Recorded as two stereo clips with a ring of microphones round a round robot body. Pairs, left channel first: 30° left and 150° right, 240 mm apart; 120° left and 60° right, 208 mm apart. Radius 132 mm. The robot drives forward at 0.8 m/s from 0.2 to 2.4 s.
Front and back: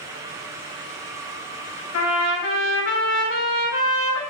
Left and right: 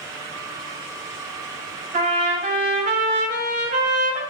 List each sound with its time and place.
1.9 s a trumpet: 5° right, 4 m